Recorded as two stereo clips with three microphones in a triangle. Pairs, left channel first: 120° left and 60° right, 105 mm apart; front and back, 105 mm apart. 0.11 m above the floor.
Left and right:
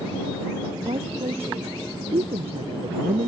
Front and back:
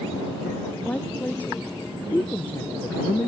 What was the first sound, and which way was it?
A woman speaking, 75° right.